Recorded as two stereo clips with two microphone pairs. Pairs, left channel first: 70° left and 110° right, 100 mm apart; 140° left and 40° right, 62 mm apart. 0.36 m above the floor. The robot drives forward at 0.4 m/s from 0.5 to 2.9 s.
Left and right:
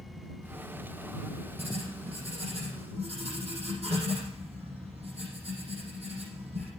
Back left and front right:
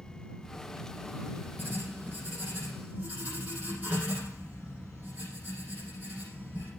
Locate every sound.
1.6 s writing: 105° right, 8 m; by 6.7 s 110° right, 8.5 m